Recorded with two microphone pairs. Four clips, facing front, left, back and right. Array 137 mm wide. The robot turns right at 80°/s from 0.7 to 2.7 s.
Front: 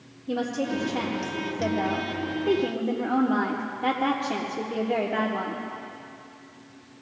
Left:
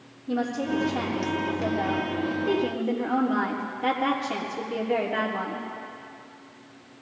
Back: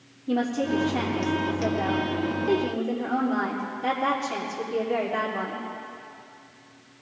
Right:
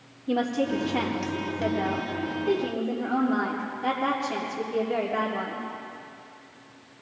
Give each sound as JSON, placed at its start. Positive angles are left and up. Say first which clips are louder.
{"t": 0.3, "sound": "a woman speaking", "louder": "right 2 dB, back 3 dB", "azimuth_deg": -120, "distance_m": 3.5}